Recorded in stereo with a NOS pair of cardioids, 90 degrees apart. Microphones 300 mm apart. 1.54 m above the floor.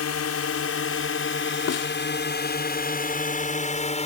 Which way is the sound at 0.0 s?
55° left.